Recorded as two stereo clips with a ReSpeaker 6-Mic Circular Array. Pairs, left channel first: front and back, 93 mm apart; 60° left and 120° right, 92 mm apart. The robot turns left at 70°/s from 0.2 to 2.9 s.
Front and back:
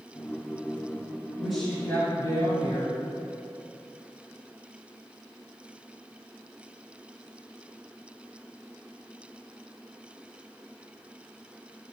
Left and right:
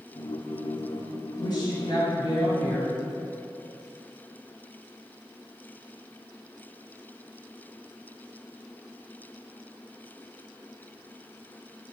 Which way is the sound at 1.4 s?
95° left.